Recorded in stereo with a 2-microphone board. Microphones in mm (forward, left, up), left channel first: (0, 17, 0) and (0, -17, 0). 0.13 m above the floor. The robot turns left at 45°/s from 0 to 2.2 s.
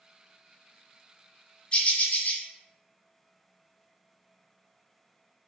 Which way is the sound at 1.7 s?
30° left (ahead or behind).